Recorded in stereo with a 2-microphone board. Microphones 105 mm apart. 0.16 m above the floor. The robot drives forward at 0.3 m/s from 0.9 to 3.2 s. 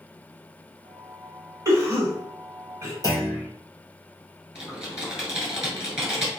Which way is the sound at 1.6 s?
30° right (ahead or behind).